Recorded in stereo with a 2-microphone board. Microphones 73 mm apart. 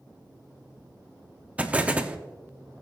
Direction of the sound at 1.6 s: 15° right (ahead or behind).